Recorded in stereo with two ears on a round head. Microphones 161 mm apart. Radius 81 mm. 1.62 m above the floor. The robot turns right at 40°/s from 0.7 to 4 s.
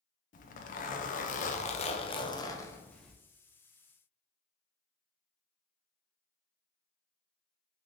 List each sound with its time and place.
0.3 s a zipper: 80° left, 0.5 m; by 3.1 s straight behind, 0.5 m